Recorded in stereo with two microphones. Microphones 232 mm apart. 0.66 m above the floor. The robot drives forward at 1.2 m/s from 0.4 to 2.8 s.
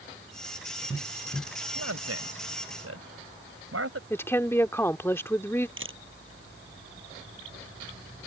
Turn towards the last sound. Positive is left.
turn(degrees=-55)  # may be behind; listen again after turning